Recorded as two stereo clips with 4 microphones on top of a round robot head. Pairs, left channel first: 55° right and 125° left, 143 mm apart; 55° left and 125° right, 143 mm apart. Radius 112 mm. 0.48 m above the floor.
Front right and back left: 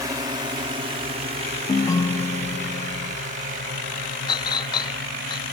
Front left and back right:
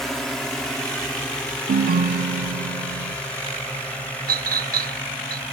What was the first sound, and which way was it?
A drone, 140° left.